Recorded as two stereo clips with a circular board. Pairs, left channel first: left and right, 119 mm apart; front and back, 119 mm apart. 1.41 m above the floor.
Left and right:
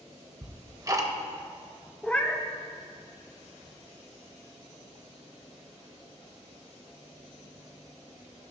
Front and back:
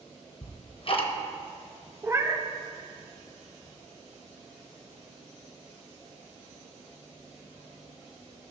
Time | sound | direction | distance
0.4 | ticking | 30° right | 0.7 m
2.0 | a cat meowing | 155° left | 0.6 m